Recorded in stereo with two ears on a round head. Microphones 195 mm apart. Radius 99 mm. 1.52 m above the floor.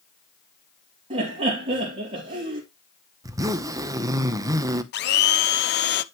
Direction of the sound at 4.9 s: 50° left (ahead or behind).